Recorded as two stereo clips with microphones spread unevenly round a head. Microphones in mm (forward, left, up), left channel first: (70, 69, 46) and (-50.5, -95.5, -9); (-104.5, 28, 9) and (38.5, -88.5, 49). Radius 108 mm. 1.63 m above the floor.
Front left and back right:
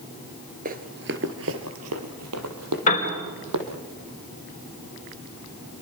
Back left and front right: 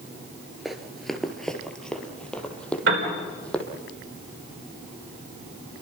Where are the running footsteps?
95° right, 1.7 m; by 3.6 s 130° right, 4 m.